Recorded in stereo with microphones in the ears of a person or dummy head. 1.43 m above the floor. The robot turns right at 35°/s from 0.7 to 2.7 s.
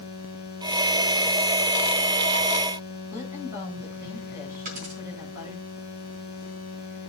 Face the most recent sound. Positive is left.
turn(degrees=-40)  # may be behind; listen again after turning